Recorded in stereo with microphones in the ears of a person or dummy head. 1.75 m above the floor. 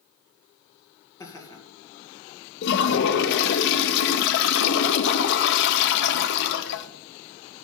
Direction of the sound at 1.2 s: 15° left (ahead or behind).